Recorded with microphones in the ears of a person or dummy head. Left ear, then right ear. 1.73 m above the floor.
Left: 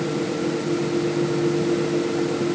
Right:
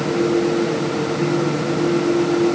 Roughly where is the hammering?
No hammering in this recording.